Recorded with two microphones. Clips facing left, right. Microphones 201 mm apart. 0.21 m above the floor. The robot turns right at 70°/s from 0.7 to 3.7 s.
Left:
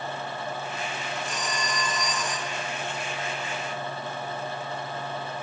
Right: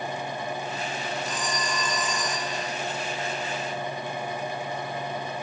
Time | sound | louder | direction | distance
1.3 | a phone ringing | right 1 dB | 130° left | 7 m